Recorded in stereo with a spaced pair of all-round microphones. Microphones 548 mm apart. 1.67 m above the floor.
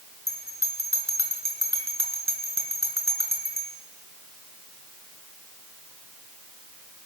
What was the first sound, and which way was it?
A bell, 30° right (ahead or behind).